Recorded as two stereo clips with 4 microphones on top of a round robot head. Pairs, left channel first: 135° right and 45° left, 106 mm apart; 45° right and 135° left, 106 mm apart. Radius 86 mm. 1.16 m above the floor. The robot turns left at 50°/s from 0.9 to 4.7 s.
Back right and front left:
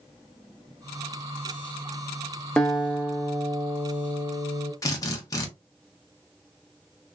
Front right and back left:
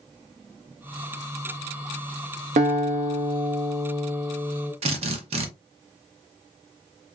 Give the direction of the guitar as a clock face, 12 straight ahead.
7 o'clock.